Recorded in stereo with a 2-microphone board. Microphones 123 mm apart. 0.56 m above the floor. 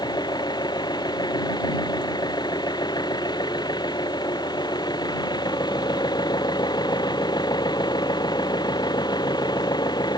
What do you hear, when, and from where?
0.0 s an engine running: 35° left (ahead or behind)